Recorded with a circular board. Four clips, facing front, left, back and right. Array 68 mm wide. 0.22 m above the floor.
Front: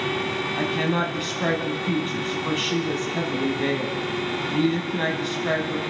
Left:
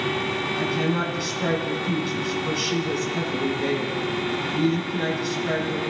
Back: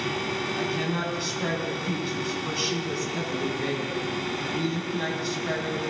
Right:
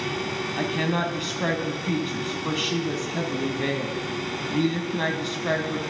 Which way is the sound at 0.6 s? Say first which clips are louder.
Even, front 7 dB; 40° right.